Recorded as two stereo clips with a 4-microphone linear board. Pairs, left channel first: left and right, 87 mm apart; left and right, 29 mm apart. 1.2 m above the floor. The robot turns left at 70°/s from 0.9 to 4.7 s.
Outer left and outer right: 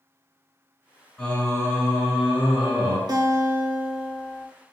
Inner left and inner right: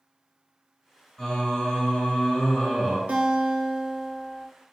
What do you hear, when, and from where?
1.2 s singing: 170° left, 1.8 m; by 3.0 s 45° left, 1.8 m
3.1 s a guitar: 115° right, 0.6 m; by 4.5 s 150° left, 0.6 m